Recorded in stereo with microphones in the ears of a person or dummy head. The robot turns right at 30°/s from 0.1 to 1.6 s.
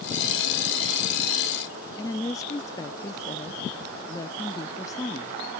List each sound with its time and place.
2.0 s a woman speaking: 20° left (ahead or behind)